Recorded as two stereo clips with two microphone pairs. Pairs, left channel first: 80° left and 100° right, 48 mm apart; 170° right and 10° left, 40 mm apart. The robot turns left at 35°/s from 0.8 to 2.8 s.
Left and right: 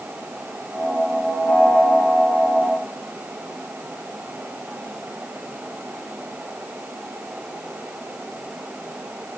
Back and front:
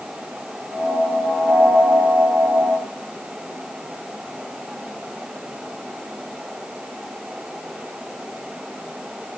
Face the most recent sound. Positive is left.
No sound to turn to.